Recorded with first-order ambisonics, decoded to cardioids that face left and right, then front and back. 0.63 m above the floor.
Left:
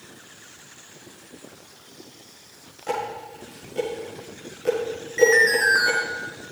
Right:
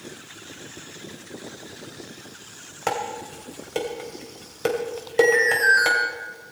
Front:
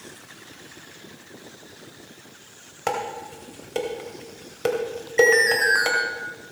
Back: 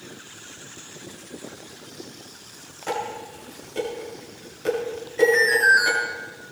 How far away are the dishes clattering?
About 2.5 m.